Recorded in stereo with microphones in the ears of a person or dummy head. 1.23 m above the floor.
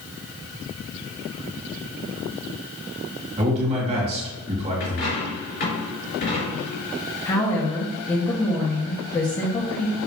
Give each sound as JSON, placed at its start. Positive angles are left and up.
{"t": 3.4, "sound": "a man speaking", "side_deg": -35, "distance_m": 3.0}
{"t": 4.8, "sound": "a dropped coin", "side_deg": 50, "distance_m": 3.0}
{"t": 7.2, "sound": "a woman speaking", "side_deg": 20, "distance_m": 1.6}